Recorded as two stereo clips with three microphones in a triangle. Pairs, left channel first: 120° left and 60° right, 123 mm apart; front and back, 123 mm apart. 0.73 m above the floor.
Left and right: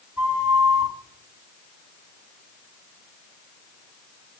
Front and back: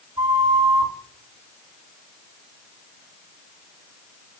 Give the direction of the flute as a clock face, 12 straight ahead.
4 o'clock.